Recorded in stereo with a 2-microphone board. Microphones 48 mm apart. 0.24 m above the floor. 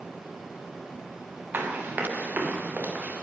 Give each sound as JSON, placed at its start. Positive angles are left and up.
{"t": 1.5, "sound": "running footsteps", "side_deg": -50, "distance_m": 3.0}